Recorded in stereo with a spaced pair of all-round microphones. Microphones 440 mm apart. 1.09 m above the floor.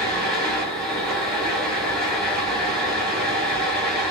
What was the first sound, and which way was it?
A fan, centre (ahead or behind).